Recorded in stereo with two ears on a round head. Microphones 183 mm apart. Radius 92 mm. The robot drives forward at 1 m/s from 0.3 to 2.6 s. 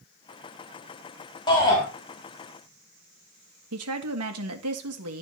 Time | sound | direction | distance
1.5 | a shout | 20° left (ahead or behind) | 3.5 m
3.7 | a woman speaking | 85° right | 1.8 m